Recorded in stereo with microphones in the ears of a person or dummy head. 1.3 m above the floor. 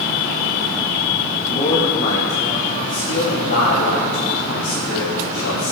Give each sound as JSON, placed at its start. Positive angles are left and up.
{"t": 1.5, "sound": "a man speaking", "side_deg": 20, "distance_m": 1.8}